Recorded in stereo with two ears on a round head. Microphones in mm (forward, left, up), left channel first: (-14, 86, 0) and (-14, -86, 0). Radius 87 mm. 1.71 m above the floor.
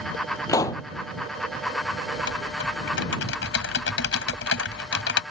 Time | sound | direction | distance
0.5 | a pop | 15° left (ahead or behind) | ?
2.1 | typing on a keyboard | 60° left (ahead or behind) | ?